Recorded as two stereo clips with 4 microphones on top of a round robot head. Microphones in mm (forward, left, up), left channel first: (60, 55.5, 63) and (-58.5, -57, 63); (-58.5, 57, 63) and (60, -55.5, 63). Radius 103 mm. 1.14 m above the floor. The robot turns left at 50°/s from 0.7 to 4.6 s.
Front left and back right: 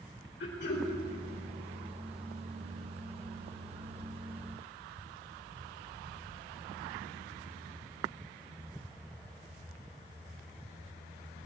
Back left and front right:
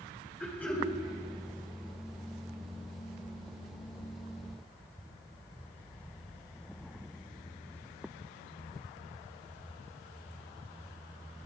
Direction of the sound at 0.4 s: 55° left.